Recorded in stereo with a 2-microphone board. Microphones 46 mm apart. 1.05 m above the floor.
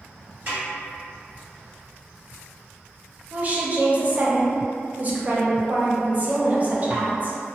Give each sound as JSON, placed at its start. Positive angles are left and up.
{"t": 0.5, "sound": "a snare drum", "side_deg": -45, "distance_m": 1.7}
{"t": 3.3, "sound": "a woman speaking", "side_deg": -35, "distance_m": 0.6}